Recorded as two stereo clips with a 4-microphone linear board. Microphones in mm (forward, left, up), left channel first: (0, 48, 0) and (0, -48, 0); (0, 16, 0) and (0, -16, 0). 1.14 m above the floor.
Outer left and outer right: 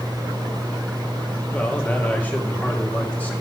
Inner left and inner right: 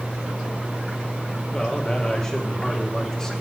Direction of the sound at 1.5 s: 15° left (ahead or behind).